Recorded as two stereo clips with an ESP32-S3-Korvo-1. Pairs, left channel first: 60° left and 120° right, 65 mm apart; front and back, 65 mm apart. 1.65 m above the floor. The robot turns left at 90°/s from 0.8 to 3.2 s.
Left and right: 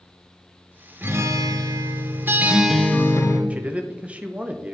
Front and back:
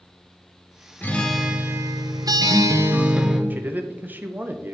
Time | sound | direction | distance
1.0 | a guitar | 65° right | 0.8 m
3.5 | a man speaking | 165° right | 0.5 m